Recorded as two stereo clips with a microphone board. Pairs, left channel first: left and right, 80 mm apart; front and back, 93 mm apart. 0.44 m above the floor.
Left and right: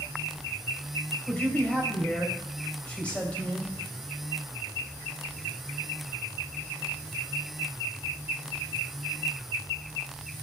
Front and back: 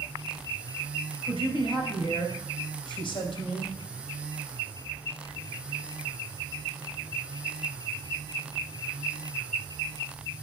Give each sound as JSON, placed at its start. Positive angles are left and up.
{"t": 1.3, "sound": "a man speaking", "azimuth_deg": 15, "distance_m": 3.0}